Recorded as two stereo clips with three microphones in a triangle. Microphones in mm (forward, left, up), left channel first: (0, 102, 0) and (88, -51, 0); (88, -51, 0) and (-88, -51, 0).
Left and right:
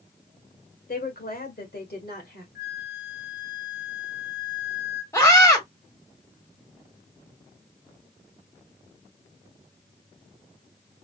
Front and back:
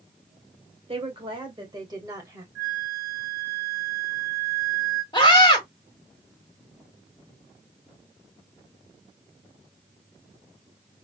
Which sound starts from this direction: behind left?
A woman speaking, at 0.9 s.